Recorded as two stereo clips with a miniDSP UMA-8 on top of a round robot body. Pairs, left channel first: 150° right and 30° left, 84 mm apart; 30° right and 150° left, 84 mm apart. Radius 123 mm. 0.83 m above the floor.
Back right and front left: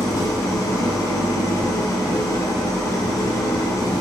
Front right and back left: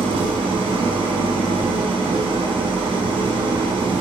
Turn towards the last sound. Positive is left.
turn(degrees=155)